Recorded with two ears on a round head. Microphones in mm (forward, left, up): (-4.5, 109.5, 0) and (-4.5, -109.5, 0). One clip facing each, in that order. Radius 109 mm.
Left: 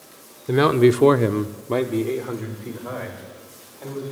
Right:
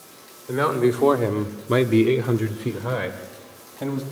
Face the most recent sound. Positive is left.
turn(degrees=-75)  # may be behind; listen again after turning